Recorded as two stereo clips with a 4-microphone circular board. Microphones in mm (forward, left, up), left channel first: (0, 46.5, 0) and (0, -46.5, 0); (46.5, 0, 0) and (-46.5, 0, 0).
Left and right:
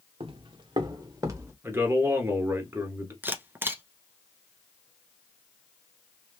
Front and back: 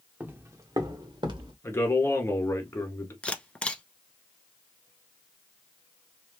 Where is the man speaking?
45° right, 1.4 m.